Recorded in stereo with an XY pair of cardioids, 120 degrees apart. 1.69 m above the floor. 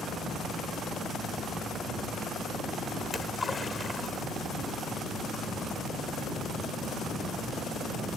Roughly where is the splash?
Ahead left.